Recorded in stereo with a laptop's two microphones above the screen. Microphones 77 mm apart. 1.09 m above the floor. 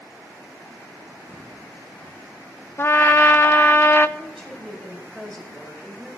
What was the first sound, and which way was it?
Footsteps, 10° right (ahead or behind).